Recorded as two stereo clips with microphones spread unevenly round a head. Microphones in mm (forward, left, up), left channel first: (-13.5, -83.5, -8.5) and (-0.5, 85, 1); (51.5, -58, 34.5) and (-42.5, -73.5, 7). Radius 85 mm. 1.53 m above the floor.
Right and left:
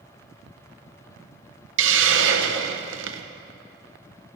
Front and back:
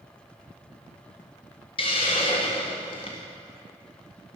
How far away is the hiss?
About 1.0 m.